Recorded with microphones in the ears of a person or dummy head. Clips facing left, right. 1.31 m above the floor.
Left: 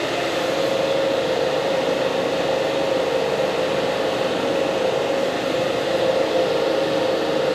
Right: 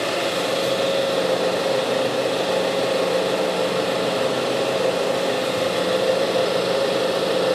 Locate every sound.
0.0 s an engine running: 65° right (ahead or behind), 2.0 m